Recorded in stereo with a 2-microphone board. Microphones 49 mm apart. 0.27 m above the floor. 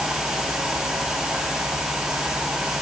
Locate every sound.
Only background noise.